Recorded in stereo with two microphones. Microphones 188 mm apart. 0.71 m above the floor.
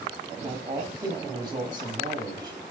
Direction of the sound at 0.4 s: 20° right (ahead or behind).